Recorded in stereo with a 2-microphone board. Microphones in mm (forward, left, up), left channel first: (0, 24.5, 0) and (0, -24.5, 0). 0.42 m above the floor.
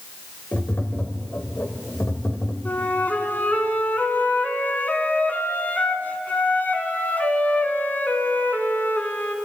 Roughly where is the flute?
Left.